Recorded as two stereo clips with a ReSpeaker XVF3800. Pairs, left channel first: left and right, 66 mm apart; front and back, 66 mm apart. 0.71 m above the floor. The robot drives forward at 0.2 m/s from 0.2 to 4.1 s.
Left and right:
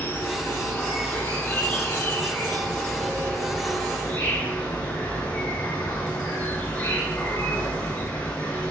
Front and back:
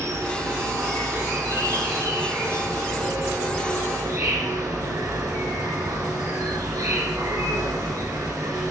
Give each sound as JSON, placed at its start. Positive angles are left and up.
{"t": 0.0, "sound": "an insect", "azimuth_deg": 145, "distance_m": 1.2}